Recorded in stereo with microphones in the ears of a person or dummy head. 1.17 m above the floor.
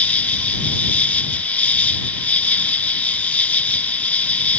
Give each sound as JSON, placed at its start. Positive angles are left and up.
{"t": 0.0, "sound": "an insect", "side_deg": 5}